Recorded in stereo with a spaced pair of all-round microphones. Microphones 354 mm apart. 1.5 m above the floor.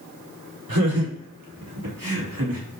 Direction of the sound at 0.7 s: 85° right.